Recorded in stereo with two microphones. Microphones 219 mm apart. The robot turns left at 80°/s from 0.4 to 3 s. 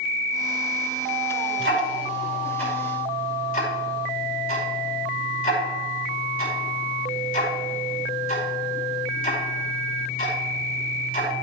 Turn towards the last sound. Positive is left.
turn(degrees=40)  # may be behind; listen again after turning